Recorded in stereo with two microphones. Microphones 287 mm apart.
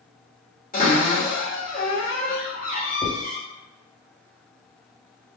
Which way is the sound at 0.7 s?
30° left (ahead or behind).